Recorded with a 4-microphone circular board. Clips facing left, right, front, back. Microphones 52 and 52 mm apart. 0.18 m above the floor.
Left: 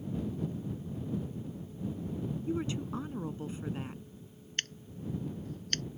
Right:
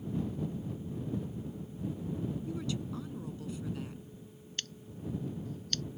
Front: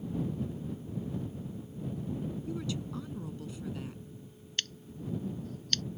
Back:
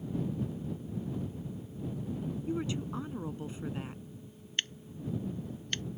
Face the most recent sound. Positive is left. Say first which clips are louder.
# left 3 dB, back 1 dB
turn(degrees=115)